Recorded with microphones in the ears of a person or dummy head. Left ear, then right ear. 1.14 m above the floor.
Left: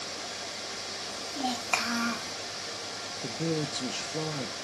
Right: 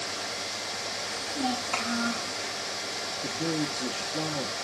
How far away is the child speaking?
About 2 m.